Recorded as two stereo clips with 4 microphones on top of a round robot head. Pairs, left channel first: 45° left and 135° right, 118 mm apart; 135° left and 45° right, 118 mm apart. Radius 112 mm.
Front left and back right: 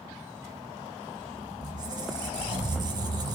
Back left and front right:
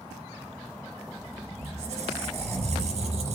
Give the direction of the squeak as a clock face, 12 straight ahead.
3 o'clock.